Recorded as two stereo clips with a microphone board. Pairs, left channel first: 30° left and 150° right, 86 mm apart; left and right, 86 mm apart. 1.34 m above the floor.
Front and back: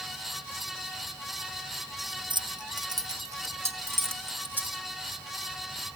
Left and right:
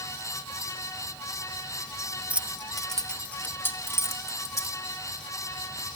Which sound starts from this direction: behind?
Keys jangling, at 2.3 s.